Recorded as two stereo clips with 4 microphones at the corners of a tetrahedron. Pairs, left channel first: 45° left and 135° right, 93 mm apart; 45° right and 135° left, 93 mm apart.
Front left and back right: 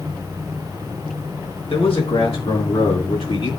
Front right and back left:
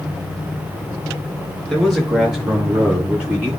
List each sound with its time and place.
1.7 s a man speaking: 45° left, 5 m; by 3.5 s 60° left, 6.5 m